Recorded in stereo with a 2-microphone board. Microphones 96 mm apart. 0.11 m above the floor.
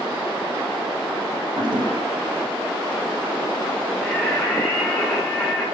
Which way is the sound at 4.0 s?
10° left (ahead or behind).